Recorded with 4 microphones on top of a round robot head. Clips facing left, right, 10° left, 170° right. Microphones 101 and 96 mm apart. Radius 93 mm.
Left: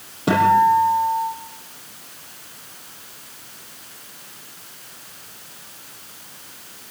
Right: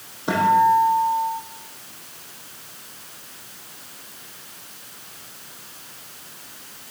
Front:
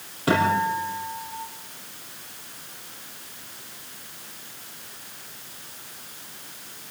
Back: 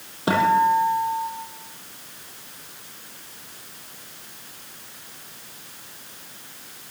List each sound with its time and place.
0.3 s a guitar: 120° left, 7 m